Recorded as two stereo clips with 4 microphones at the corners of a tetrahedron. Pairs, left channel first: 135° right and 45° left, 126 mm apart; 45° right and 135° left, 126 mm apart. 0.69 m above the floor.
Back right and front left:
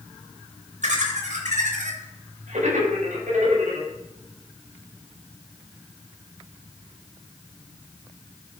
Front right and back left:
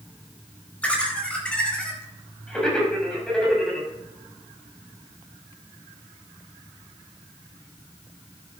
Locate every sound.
0.8 s laughter: 35° left, 4 m; by 3.9 s 40° left, 5.5 m